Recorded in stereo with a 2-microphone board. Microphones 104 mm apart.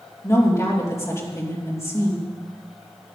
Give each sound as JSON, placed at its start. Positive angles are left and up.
{"t": 0.2, "sound": "a woman speaking", "side_deg": 30, "distance_m": 3.0}